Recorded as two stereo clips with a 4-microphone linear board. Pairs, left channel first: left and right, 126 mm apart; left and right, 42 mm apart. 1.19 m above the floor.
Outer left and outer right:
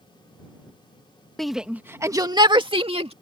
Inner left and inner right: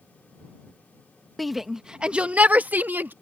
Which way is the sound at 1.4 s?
5° left (ahead or behind).